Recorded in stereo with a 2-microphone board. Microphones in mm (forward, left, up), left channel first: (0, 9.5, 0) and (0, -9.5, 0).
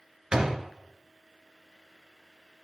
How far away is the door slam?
About 1.9 m.